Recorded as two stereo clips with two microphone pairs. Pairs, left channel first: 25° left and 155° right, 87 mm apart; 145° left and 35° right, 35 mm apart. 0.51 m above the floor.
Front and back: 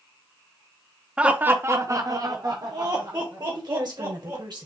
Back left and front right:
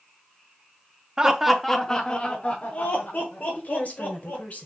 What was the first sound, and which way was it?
Laughter, 85° right.